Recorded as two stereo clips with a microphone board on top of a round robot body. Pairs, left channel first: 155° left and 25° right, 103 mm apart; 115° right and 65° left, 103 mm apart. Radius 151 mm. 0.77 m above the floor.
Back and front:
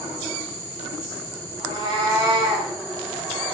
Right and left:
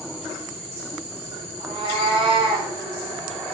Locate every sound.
1.6 s a cat meowing: 20° left, 0.5 m; by 2.7 s 30° left, 1.1 m